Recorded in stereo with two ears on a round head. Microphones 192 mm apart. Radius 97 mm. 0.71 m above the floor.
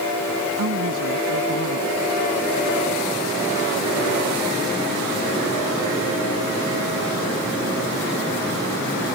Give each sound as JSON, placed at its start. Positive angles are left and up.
{"t": 0.6, "sound": "a woman speaking", "side_deg": -80}